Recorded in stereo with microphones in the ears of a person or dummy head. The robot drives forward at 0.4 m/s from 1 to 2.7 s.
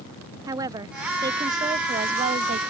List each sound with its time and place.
0.5 s a woman speaking: 20° right (ahead or behind); by 2.6 s 40° right (ahead or behind)